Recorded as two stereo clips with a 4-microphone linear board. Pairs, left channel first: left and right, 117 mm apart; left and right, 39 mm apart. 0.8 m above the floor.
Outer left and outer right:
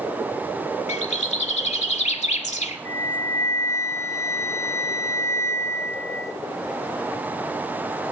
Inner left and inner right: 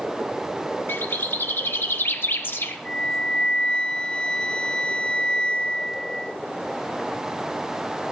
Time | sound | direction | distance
0.9 | a bird | 70° left (ahead or behind) | 1.5 m
2.9 | a flute | 25° left (ahead or behind) | 0.6 m